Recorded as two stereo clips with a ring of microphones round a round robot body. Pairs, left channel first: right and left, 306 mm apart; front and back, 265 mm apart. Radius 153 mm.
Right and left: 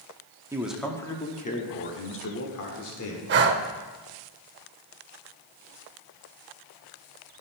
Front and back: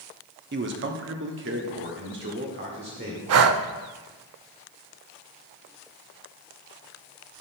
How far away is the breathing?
About 0.6 m.